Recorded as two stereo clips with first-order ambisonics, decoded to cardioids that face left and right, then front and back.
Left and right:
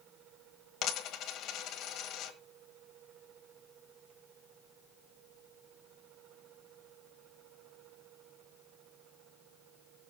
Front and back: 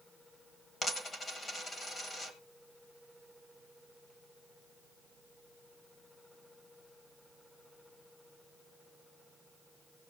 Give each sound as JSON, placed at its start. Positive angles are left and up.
{"t": 0.8, "sound": "a dropped coin", "azimuth_deg": 70, "distance_m": 1.4}